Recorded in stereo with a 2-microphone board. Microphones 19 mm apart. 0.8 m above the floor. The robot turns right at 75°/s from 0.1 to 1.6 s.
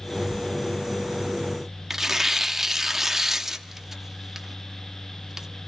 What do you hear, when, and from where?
1.9 s tearing paper: 15° right (ahead or behind), 1.0 m